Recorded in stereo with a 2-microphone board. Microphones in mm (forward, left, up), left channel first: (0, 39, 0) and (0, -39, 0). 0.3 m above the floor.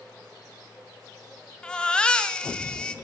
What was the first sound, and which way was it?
A baby crying, 10° left (ahead or behind).